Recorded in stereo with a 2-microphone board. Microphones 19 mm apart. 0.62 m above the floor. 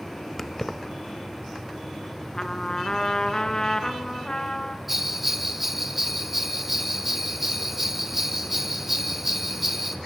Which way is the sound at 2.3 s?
40° left (ahead or behind).